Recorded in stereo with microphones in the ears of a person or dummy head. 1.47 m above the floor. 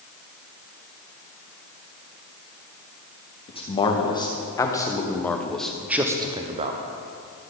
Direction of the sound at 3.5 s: 20° left (ahead or behind).